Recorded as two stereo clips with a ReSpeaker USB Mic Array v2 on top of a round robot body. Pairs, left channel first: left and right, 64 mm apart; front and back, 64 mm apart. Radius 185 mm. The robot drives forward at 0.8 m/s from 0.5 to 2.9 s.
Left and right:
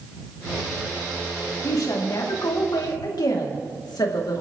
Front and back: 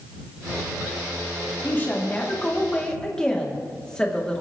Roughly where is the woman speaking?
Ahead left.